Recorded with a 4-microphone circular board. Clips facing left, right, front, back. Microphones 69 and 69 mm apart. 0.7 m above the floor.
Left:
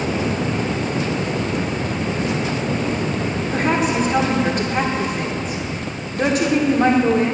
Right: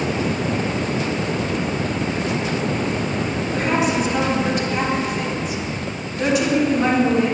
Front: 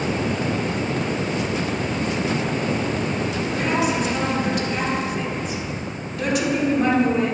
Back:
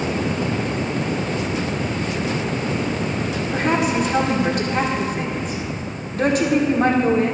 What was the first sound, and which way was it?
A woman speaking, 135° left.